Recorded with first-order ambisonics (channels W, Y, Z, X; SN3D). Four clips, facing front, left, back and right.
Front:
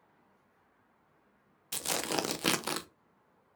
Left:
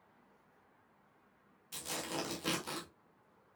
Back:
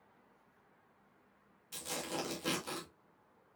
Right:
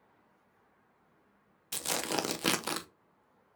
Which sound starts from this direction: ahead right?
Tearing paper, at 1.7 s.